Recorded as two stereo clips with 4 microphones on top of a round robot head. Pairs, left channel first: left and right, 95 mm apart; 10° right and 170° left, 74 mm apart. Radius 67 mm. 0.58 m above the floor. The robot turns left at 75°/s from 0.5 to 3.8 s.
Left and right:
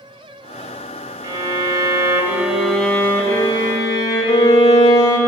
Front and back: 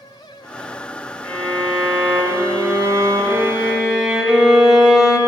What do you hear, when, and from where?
1.2 s a violin: 65° right, 0.8 m; by 5.2 s 105° left, 0.8 m